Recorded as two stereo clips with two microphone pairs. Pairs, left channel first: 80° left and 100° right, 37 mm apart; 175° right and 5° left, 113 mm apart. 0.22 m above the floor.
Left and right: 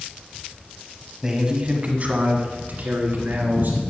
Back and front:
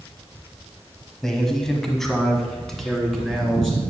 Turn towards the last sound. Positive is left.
turn(degrees=-85)